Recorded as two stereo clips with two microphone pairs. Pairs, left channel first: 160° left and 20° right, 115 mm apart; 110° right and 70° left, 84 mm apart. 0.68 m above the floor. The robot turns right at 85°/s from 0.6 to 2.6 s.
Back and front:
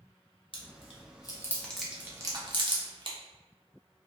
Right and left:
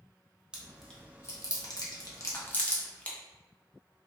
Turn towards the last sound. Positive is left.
turn(degrees=-45)